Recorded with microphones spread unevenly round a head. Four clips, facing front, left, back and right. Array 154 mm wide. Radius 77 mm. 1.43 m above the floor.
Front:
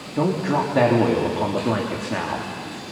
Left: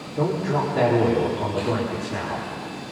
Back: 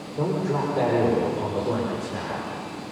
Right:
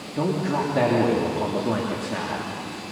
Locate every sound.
0.2 s a man speaking: 20° right, 3 m